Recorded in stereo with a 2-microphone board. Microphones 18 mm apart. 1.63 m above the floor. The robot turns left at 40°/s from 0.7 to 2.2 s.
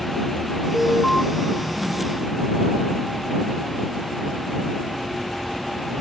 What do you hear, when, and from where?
0.7 s an alarm: 25° left (ahead or behind); by 1.2 s 45° left (ahead or behind)